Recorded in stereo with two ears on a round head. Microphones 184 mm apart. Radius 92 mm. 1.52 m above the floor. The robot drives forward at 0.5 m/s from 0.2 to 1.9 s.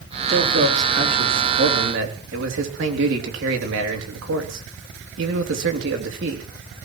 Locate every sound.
0.3 s a man speaking: 55° right (ahead or behind), 3.5 m; by 6.4 s 65° right (ahead or behind), 3 m